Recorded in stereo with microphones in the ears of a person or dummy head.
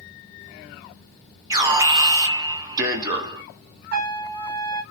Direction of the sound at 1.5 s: 20° right (ahead or behind).